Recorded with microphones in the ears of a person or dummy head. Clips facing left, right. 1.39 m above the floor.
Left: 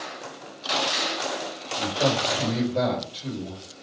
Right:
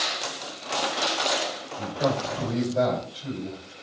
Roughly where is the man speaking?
Left.